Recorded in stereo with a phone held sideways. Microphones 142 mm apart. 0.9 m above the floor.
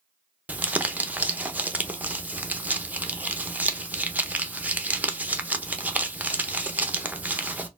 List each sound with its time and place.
0.5 s crumpling: 10° right (ahead or behind), 0.5 m